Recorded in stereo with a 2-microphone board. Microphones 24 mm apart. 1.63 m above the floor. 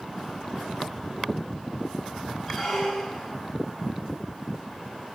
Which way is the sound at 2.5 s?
Centre (ahead or behind).